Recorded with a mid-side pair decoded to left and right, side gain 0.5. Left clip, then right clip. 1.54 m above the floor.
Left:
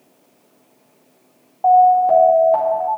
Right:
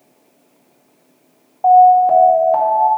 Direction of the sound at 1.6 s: 10° right.